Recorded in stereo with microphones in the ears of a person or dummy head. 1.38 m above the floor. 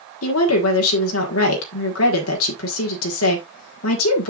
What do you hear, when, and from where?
0.2 s a woman speaking: 85° left, 1.5 m